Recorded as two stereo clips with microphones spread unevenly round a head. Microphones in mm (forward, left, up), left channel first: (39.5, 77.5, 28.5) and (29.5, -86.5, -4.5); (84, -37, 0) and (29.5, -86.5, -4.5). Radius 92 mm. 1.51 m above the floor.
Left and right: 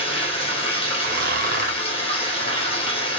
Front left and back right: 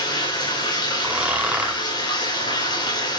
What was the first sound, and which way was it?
Running water, 30° left.